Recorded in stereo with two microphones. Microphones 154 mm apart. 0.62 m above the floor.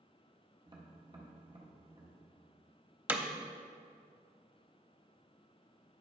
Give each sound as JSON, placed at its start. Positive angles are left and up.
{"t": 0.7, "sound": "tapping", "side_deg": -30, "distance_m": 1.4}
{"t": 3.1, "sound": "hammering", "side_deg": -15, "distance_m": 0.7}